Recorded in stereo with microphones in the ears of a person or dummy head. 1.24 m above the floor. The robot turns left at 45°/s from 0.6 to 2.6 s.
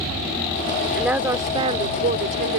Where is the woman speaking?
5° right; by 2.6 s 75° right.